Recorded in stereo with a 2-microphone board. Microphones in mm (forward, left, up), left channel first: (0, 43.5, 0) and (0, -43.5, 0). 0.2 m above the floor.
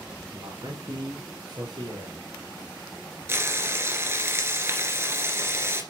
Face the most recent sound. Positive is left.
turn(degrees=-30)  # may be behind; listen again after turning